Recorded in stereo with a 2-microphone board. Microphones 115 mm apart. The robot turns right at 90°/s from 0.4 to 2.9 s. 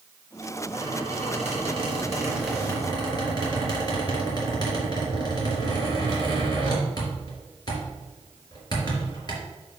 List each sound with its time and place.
0.7 s a squeak: 160° right, 3.5 m; by 9.3 s 35° left, 3.5 m